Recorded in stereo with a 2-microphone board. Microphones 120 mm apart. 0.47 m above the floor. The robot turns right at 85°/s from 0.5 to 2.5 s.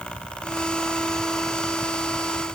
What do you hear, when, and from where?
Only background noise.